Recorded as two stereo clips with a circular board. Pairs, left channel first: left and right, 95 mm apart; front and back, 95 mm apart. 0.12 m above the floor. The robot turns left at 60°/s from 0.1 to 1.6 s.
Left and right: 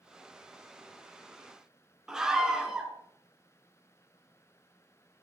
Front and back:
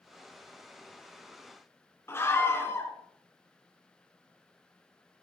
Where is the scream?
15° right, 1.6 m.